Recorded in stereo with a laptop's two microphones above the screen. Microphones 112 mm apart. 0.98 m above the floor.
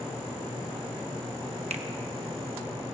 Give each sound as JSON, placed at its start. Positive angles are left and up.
{"t": 1.7, "sound": "a finger snap", "side_deg": -80, "distance_m": 1.0}